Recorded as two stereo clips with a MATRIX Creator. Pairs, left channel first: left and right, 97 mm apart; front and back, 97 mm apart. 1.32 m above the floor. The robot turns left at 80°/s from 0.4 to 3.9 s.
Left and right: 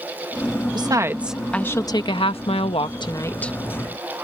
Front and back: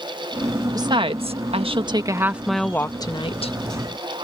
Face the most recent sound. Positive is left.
turn(degrees=-20)